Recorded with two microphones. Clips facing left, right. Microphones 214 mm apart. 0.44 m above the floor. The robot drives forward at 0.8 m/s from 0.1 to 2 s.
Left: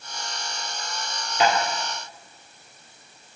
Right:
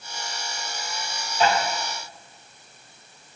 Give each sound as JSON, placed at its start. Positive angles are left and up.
{"t": 1.4, "sound": "tapping", "side_deg": 85, "distance_m": 2.5}